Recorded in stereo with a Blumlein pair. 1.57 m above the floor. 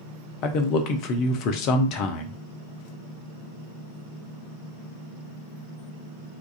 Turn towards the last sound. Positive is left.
turn(degrees=40)